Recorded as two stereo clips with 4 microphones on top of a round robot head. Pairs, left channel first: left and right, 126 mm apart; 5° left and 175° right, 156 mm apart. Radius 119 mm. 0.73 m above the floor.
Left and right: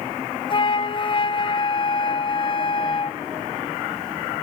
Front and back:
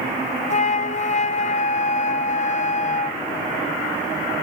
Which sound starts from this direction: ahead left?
A flute, at 0.5 s.